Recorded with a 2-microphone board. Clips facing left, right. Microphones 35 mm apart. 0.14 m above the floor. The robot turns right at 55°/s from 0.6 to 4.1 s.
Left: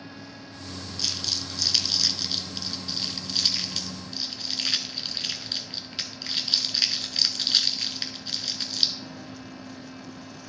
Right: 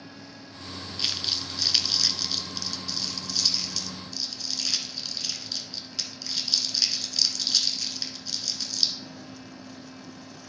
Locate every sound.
1.0 s crumpling: 35° right (ahead or behind), 0.8 m; by 8.9 s 40° left (ahead or behind), 0.8 m